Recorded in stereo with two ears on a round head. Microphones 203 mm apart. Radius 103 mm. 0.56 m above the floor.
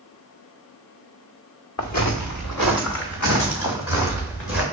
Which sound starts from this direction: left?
Footsteps, at 1.8 s.